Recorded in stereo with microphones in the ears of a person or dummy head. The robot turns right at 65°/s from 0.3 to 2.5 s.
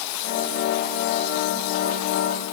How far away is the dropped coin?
No dropped coin in this recording.